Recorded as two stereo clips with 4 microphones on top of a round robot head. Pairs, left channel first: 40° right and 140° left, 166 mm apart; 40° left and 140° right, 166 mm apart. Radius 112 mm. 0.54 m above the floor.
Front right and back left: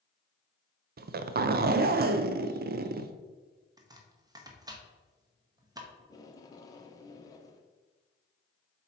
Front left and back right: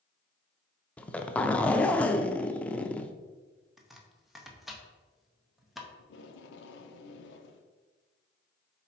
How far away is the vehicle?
No vehicle in this recording.